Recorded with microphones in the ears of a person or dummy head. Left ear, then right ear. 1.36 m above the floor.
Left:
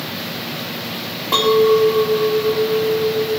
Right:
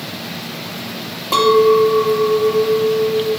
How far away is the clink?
About 2 m.